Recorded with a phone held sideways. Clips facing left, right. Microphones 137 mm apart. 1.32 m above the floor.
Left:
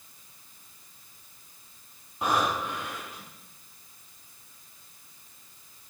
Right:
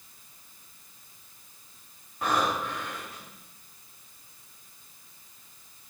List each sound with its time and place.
2.2 s breathing: 15° left (ahead or behind), 4.5 m